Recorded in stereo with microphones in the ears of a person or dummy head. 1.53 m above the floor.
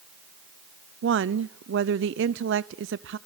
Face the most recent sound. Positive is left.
turn(degrees=-65)  # may be behind; listen again after turning